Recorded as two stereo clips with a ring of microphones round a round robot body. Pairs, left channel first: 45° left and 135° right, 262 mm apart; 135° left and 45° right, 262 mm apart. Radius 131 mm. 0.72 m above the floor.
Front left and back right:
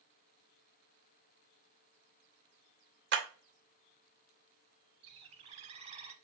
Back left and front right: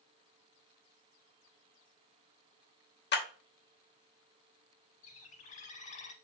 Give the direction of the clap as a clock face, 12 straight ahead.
6 o'clock.